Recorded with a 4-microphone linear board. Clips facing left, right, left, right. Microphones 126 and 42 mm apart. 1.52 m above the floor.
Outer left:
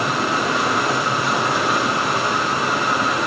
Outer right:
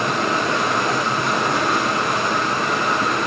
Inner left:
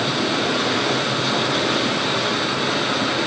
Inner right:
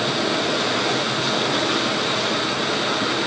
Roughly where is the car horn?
No car horn in this recording.